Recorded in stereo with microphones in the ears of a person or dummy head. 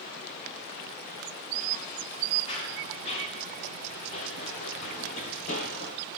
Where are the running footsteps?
35° left (ahead or behind), 8 m; by 6.0 s 50° left (ahead or behind), 6 m.